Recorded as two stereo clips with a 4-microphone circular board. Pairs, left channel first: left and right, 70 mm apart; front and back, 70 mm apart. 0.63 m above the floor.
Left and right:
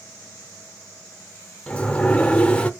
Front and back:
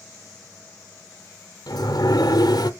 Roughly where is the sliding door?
Ahead.